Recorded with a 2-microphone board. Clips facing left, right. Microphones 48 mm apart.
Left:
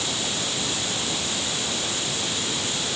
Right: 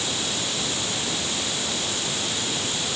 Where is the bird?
No bird in this recording.